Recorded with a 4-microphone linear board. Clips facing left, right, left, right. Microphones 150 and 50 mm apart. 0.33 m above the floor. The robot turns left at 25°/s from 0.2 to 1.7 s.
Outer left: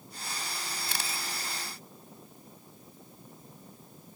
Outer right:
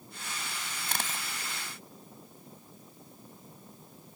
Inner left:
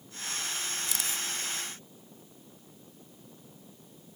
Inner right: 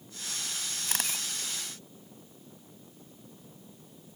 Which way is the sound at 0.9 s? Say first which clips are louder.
Outer right 4 dB, even; 50° right (ahead or behind).